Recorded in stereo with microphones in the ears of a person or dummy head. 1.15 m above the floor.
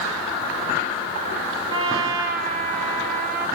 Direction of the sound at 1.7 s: 45° right (ahead or behind).